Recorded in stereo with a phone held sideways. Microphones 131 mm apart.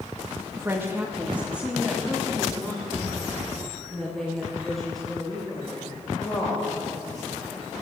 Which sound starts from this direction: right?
A woman speaking, at 0.6 s.